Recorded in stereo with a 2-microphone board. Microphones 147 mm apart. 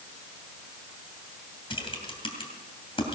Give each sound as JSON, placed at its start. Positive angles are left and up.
{"t": 1.7, "sound": "typing on a keyboard", "side_deg": 35, "distance_m": 2.5}